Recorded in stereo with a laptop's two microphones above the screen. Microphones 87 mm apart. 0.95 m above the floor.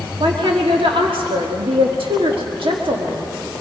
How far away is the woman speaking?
About 1.5 m.